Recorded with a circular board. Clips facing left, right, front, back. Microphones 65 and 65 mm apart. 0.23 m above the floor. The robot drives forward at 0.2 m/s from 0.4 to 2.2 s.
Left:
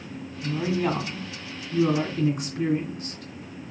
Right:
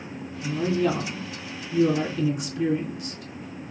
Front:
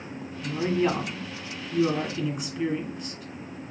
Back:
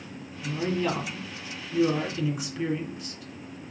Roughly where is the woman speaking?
Left.